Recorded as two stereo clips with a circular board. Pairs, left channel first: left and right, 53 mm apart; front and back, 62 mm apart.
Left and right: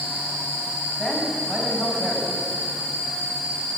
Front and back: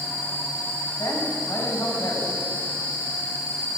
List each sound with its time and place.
1.0 s a man speaking: 10° right, 6.5 m